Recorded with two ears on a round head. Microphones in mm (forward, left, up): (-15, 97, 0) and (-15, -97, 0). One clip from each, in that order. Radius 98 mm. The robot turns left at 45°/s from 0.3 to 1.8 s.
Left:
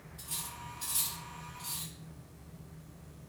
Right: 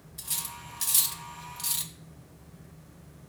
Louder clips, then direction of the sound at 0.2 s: Right 5 dB; 40° right (ahead or behind).